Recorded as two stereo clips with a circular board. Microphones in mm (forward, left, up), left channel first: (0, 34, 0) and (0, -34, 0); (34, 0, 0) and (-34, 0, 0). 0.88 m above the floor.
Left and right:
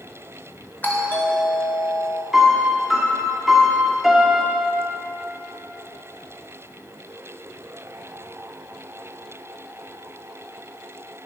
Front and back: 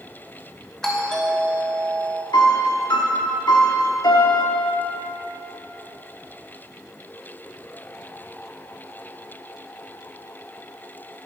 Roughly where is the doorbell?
Left.